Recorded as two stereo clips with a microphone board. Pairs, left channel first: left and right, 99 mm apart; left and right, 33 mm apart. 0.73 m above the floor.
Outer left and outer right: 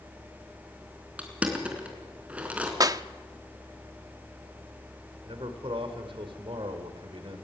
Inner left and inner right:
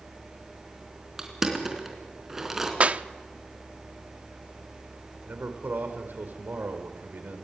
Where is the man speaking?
60° right (ahead or behind), 3 m.